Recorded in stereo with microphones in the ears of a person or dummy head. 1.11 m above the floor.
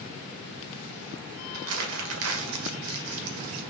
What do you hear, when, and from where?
1.5 s crumpling: 75° right (ahead or behind), 1.8 m